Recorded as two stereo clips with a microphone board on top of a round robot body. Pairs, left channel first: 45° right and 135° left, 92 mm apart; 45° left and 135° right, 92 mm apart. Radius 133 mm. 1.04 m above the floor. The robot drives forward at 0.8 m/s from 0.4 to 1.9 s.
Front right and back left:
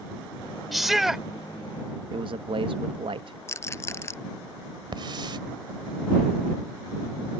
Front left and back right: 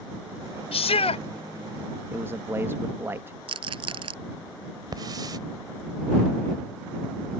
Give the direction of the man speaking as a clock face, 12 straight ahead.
7 o'clock.